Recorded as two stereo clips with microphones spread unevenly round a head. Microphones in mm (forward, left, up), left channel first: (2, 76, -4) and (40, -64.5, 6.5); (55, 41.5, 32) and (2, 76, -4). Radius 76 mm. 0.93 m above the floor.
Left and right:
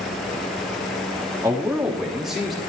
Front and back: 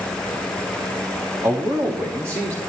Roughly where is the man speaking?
Behind right.